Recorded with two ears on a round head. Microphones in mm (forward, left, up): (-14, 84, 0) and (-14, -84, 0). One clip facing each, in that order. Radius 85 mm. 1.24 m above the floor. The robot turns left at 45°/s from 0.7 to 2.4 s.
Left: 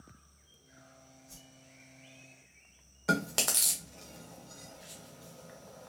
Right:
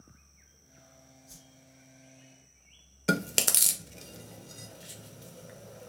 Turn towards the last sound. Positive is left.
turn(degrees=-30)  # may be behind; listen again after turning